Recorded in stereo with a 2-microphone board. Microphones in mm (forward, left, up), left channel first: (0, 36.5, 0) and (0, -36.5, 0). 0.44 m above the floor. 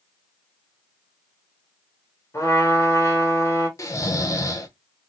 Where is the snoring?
45° left (ahead or behind), 0.7 m.